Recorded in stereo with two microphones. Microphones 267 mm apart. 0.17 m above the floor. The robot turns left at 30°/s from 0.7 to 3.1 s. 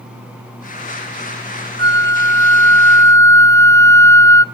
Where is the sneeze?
I don't hear a sneeze.